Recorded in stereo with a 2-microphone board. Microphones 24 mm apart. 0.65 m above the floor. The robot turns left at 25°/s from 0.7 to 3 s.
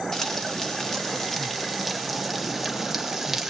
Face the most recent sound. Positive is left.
turn(degrees=-25)